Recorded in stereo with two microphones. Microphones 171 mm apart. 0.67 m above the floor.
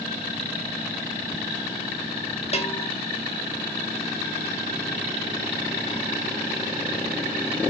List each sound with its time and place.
2.5 s a bell: 40° left (ahead or behind), 1.1 m